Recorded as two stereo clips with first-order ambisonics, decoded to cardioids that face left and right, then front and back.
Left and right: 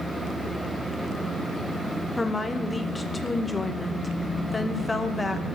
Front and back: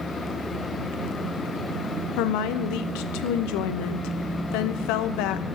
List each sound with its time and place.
2.2 s a woman speaking: 10° left, 0.6 m